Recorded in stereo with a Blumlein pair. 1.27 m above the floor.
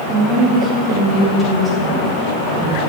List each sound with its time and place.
0.1 s a woman speaking: 25° right, 3 m; by 2.9 s 5° left, 4 m